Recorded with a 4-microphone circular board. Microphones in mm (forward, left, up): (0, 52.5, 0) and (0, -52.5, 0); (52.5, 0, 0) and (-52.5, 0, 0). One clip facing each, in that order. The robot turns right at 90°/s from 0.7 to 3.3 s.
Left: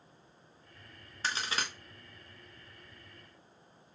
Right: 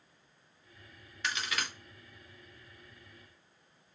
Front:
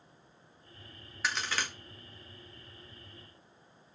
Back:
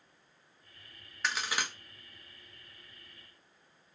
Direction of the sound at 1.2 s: 85° left.